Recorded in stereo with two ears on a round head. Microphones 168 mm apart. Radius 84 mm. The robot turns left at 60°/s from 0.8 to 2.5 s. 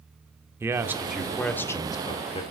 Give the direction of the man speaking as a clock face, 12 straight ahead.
5 o'clock.